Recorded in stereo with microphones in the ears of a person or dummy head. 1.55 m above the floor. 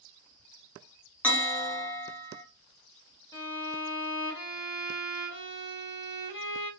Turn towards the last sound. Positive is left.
turn(degrees=20)  # may be behind; listen again after turning